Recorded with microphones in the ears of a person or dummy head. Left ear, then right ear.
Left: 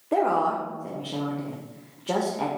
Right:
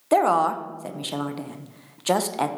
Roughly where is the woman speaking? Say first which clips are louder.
Right 4 dB; right.